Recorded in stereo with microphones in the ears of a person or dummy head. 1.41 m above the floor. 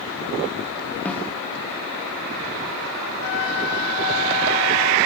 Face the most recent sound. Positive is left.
turn(degrees=60)  # may be behind; listen again after turning